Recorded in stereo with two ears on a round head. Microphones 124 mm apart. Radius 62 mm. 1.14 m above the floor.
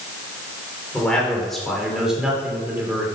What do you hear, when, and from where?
0.9 s a man speaking: 5° left (ahead or behind), 4 m; by 3.1 s 15° right (ahead or behind), 3.5 m